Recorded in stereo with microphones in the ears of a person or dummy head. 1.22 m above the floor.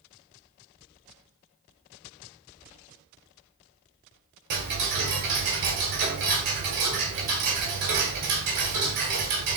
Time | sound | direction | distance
4.5 | ticking | 50° right (ahead or behind) | 1.5 m